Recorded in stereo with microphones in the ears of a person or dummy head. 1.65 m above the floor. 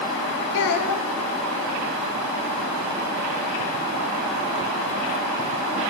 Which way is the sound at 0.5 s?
65° left (ahead or behind).